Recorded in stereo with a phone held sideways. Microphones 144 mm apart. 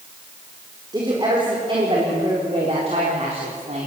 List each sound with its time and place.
0.9 s a woman speaking: 30° right (ahead or behind), 4 m; by 3.9 s 55° right (ahead or behind), 3.5 m